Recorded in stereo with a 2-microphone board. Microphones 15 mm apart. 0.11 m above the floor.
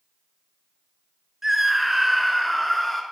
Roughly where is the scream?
Right.